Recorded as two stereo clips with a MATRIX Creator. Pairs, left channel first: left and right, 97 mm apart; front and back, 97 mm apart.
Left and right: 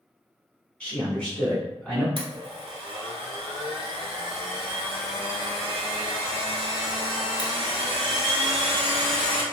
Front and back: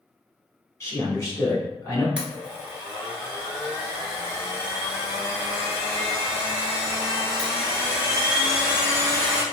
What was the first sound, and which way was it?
A man speaking, 25° left.